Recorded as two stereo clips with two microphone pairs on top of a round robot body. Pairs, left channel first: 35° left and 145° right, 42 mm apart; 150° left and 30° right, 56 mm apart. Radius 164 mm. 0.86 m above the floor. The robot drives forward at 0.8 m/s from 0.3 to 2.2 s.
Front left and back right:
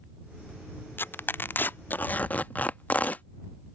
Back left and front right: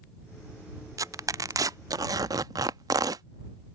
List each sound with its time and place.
1.0 s tearing paper: 10° right; by 3.2 s 20° right